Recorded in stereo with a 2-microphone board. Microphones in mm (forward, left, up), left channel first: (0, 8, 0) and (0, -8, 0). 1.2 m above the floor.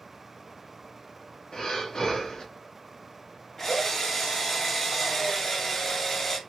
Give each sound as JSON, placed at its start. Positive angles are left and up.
{"t": 1.5, "sound": "breathing", "side_deg": 45, "distance_m": 1.2}
{"t": 3.6, "sound": "a drill", "side_deg": 20, "distance_m": 1.5}